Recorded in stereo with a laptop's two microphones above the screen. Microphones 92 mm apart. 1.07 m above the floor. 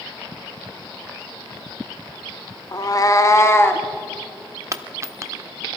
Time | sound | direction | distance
2.7 | a cat meowing | 40° left (ahead or behind) | 0.6 m
4.7 | a dropped coin | 35° right (ahead or behind) | 0.7 m